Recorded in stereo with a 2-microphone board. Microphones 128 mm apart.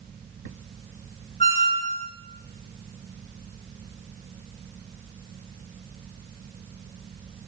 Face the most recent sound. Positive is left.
turn(degrees=55)  # may be behind; listen again after turning